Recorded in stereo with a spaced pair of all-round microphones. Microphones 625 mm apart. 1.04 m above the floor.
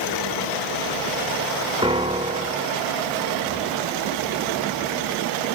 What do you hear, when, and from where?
1.8 s a piano: 10° right (ahead or behind), 0.8 m